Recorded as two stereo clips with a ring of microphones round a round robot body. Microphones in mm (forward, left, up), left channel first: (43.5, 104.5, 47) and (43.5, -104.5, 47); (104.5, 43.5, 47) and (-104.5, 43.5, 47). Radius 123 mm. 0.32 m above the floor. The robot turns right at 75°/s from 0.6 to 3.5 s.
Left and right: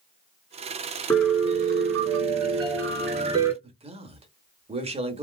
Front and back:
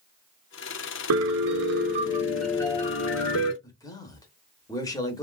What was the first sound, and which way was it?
A piano, 170° left.